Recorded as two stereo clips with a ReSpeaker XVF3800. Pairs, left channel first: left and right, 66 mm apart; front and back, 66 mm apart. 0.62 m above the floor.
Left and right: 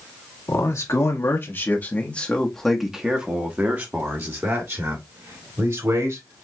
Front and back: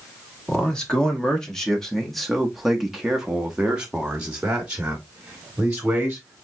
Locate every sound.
0.5 s a man speaking: 75° left, 1.5 m; by 6.4 s 110° right, 2.5 m